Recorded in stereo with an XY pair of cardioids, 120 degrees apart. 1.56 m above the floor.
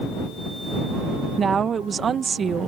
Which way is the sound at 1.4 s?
35° right.